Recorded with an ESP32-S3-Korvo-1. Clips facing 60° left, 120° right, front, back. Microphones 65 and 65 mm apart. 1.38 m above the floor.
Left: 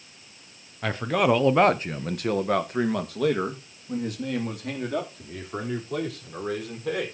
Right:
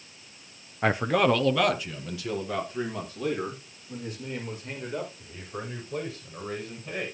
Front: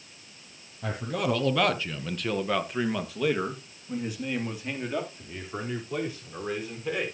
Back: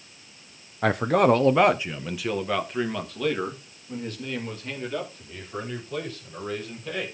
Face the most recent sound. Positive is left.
turn(degrees=75)